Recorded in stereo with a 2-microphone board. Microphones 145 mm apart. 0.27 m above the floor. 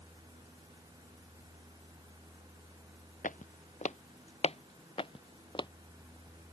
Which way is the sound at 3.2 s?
65° left (ahead or behind).